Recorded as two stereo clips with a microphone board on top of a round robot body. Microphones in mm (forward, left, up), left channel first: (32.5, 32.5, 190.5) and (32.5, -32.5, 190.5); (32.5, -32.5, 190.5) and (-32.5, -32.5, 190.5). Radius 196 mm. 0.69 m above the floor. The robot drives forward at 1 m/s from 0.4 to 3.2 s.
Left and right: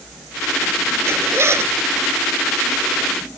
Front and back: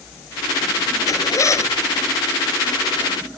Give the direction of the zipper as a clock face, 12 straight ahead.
1 o'clock.